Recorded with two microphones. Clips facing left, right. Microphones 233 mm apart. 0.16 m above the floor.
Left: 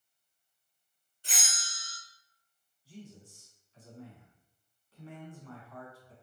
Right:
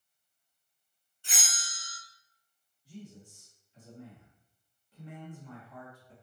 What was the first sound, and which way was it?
A bell, 40° left (ahead or behind).